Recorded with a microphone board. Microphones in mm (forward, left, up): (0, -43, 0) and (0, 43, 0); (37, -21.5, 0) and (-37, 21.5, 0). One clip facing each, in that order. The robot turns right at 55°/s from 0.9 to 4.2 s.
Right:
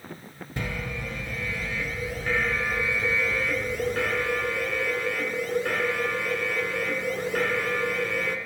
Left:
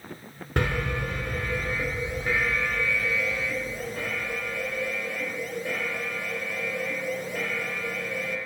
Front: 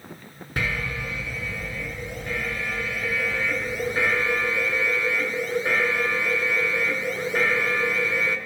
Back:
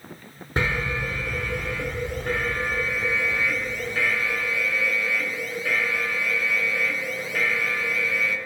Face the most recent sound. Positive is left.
turn(degrees=-85)